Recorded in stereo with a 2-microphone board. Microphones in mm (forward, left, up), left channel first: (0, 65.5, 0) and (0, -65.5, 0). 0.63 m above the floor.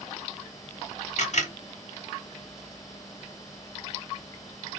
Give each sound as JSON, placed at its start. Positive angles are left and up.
{"t": 1.2, "sound": "a camera shutter", "side_deg": 65, "distance_m": 1.0}